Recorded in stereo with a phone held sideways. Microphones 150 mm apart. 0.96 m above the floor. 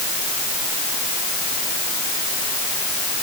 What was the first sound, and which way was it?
Only background noise.